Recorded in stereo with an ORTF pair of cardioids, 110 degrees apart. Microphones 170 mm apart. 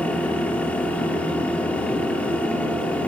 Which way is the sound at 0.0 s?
5° left.